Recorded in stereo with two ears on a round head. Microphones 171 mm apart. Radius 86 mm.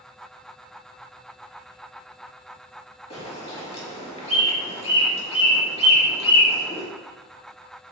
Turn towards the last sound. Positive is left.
turn(degrees=30)  # may be behind; listen again after turning